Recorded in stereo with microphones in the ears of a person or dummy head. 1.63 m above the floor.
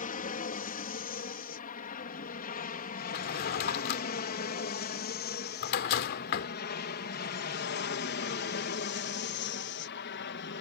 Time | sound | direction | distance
0.0 | an aircraft | 40° left (ahead or behind) | ?
3.1 | a drawer | 60° left (ahead or behind) | ?